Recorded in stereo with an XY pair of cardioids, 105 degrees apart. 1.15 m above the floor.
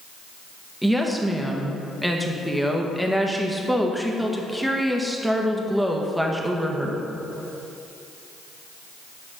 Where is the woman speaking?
Straight ahead, 1.1 m.